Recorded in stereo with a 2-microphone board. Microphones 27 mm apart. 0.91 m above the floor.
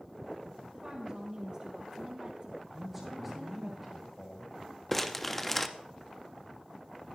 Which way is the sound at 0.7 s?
35° right (ahead or behind).